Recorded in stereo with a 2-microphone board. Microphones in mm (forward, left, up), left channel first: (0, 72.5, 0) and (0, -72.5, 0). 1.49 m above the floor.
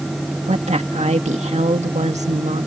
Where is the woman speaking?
50° right (ahead or behind).